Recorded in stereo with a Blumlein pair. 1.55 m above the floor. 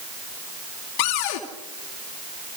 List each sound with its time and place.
1.0 s a cupboard door: 40° left, 2.5 m